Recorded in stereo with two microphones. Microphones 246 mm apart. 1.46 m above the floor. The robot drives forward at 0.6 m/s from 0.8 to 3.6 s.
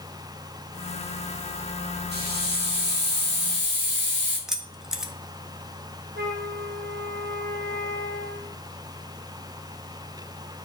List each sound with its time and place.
2.1 s a hiss: 40° right (ahead or behind), 6.5 m; by 4.4 s 50° right (ahead or behind), 5.5 m
4.5 s keys jangling: centre (ahead or behind), 1.3 m
6.2 s a flute: 45° right (ahead or behind), 3 m